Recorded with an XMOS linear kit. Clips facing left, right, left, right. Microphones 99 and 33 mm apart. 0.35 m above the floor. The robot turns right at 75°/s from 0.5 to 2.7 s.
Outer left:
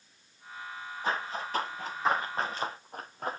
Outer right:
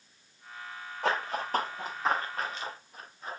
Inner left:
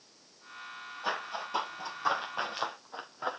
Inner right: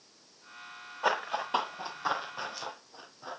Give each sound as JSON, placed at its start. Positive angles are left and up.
{"t": 1.0, "sound": "running footsteps", "side_deg": -85, "distance_m": 4.5}